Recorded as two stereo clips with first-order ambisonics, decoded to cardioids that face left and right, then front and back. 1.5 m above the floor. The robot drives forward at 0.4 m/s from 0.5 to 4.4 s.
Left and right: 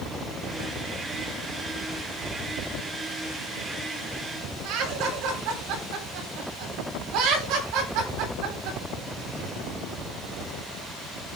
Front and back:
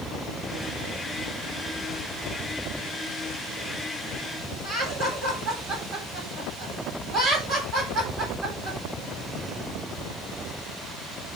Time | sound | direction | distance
4.6 | laughter | 115° right | 6 m